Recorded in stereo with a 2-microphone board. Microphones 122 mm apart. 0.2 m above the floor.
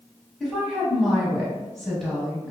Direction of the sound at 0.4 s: 5° left (ahead or behind).